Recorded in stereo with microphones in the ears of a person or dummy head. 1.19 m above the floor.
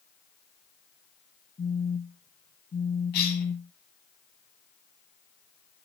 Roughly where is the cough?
Left.